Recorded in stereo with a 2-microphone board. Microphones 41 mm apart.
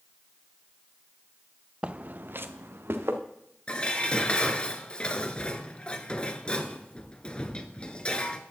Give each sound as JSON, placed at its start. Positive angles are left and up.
{"t": 1.8, "sound": "footsteps", "side_deg": -30, "distance_m": 0.8}
{"t": 3.7, "sound": "dishes clattering", "side_deg": 25, "distance_m": 1.2}